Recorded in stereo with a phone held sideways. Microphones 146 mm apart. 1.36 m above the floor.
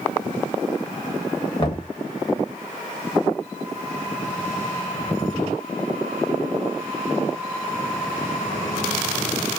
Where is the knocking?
35° left (ahead or behind), 1.1 m.